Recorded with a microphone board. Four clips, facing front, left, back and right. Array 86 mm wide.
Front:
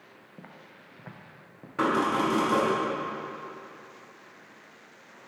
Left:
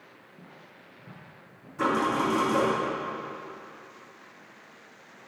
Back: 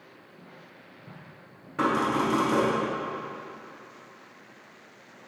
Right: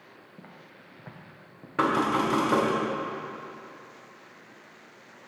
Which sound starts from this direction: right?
Knocking, at 1.8 s.